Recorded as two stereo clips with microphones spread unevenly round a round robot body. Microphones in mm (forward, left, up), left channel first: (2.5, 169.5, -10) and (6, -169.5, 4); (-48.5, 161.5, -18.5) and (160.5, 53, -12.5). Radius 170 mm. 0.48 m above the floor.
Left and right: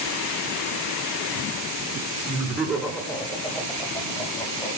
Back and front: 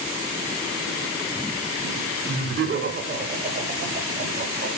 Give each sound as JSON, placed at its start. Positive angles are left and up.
{"t": 2.3, "sound": "laughter", "azimuth_deg": -20, "distance_m": 1.5}